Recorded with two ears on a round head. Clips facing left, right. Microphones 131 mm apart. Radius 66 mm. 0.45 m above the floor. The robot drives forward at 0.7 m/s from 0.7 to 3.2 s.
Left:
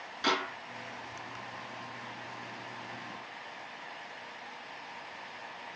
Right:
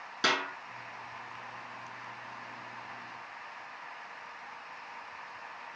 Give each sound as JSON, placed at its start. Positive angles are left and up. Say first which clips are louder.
{"t": 0.2, "sound": "a snare drum", "louder": "left 1 dB", "side_deg": -55, "distance_m": 6.0}